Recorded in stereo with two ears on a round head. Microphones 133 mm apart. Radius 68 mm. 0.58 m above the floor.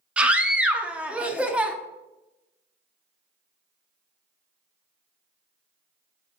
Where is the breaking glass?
I don't hear breaking glass.